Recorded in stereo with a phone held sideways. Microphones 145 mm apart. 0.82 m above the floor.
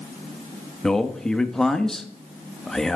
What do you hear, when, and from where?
0.8 s a man speaking: 5° left (ahead or behind), 0.7 m